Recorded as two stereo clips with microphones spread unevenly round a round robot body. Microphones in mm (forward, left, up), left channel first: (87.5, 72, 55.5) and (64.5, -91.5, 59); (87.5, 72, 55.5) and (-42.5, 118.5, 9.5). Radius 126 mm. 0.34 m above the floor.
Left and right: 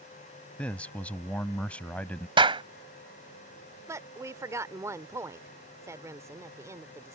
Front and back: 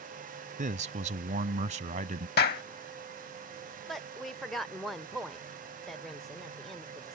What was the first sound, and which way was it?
A man speaking, 165° left.